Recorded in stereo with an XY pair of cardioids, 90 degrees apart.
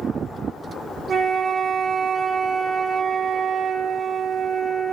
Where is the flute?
40° right, 0.9 m.